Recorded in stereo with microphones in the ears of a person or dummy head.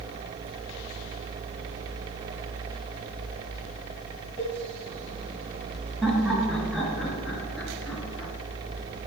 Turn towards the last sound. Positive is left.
turn(degrees=-5)  # may be behind; listen again after turning